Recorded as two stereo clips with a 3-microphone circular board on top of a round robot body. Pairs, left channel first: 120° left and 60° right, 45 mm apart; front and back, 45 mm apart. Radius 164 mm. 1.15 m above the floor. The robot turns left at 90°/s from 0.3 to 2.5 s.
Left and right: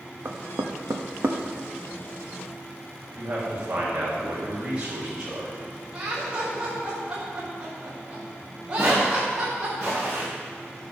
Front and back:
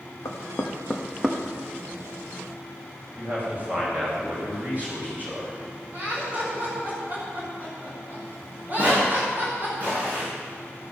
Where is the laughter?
130° right, 5.5 m.